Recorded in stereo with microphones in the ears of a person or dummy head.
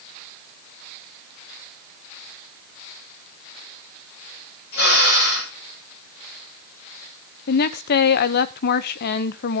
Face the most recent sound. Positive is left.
turn(degrees=50)  # may be behind; listen again after turning